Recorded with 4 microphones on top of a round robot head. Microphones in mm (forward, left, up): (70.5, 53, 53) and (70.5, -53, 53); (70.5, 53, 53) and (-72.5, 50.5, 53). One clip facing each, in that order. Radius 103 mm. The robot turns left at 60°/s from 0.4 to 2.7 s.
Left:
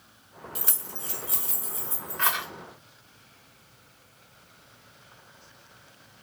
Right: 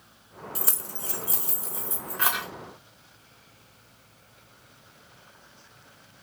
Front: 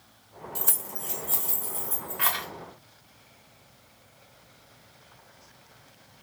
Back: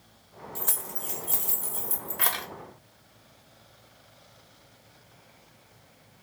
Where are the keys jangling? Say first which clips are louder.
Right 2 dB, back 1 dB; 65° right, 0.7 m; by 2.5 s straight behind, 0.7 m.